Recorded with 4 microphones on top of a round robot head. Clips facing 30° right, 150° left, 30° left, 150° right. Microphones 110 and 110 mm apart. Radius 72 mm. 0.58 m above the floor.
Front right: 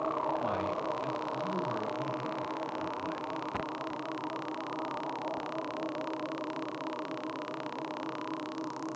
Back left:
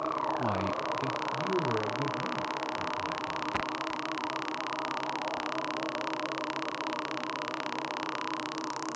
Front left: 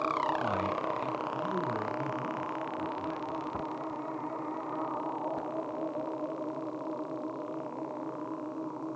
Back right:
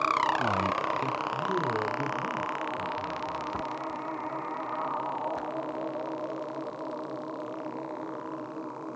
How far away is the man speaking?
About 0.8 m.